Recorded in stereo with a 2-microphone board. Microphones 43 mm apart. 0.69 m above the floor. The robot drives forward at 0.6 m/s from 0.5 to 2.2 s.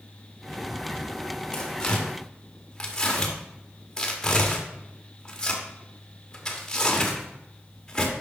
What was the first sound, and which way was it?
Tearing paper, 10° left (ahead or behind).